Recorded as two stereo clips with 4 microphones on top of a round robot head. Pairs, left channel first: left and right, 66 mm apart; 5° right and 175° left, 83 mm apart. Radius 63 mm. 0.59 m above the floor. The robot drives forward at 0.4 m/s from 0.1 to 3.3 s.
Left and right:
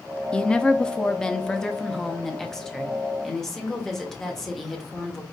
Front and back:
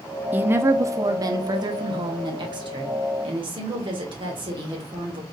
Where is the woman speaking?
140° left, 0.6 m; by 5.2 s 175° left, 1.5 m.